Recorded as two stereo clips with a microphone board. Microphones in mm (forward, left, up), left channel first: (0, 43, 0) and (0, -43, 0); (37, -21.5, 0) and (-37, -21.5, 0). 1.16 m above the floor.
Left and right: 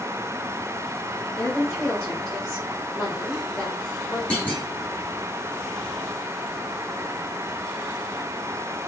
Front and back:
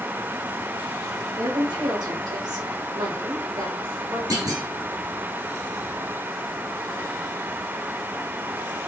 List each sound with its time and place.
1.4 s a woman speaking: 160° left, 1.8 m
4.3 s a clunk: 160° left, 1.6 m